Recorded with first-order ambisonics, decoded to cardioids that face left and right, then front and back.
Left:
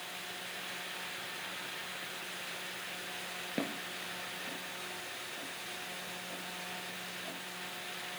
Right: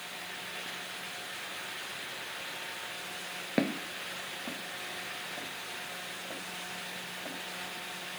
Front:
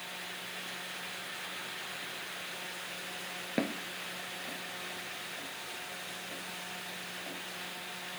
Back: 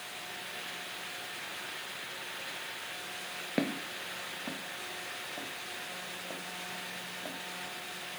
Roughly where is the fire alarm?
I don't hear a fire alarm.